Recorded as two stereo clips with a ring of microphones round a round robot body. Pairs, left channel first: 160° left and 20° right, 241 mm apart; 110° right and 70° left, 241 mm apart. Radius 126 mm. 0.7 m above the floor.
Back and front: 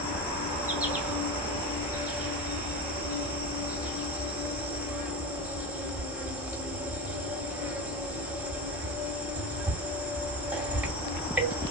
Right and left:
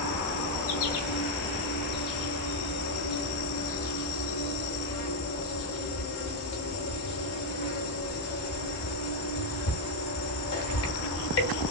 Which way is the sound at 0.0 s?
105° right.